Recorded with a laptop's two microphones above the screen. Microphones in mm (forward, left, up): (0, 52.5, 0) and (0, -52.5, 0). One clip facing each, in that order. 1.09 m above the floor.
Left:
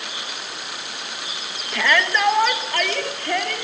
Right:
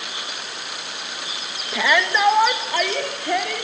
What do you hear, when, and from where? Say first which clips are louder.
1.7 s a shout: right 1 dB; 10° right (ahead or behind), 1.5 m